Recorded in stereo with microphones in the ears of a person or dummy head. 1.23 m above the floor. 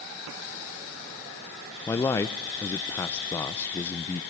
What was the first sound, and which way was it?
A man speaking, 10° left (ahead or behind).